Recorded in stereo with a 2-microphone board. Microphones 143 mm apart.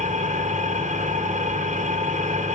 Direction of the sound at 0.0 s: 55° right (ahead or behind).